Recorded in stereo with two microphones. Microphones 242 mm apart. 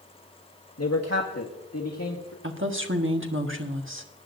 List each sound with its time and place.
0.8 s a man speaking: 75° left (ahead or behind), 1.1 m
2.4 s a woman speaking: 50° right (ahead or behind), 1.3 m